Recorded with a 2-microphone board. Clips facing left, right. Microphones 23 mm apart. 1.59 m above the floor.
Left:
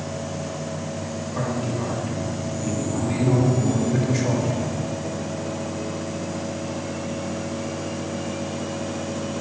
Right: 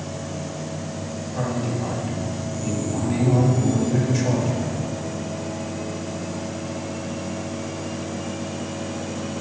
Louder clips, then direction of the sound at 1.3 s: Right 1 dB; 80° left.